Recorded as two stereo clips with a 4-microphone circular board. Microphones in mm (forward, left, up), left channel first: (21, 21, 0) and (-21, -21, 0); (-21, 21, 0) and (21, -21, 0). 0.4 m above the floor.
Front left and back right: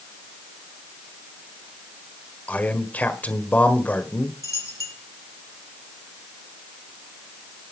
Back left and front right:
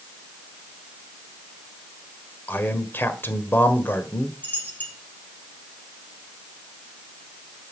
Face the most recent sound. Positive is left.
turn(degrees=75)